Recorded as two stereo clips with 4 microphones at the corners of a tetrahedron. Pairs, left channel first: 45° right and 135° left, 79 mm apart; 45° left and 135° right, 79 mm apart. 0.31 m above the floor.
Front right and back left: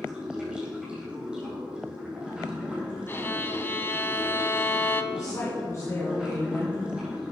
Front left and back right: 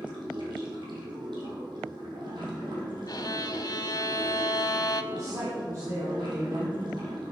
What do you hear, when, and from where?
0.0 s running water: 150° right, 4 m
3.1 s a violin: 15° left, 0.6 m
5.1 s a woman speaking: 90° right, 2 m